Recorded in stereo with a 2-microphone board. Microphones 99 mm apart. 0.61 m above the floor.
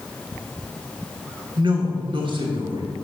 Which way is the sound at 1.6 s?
55° right (ahead or behind).